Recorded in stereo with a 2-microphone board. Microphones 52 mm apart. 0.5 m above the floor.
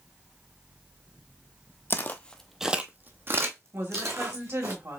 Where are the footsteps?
40° left (ahead or behind), 0.7 m; by 4.7 s 70° right (ahead or behind), 1.7 m.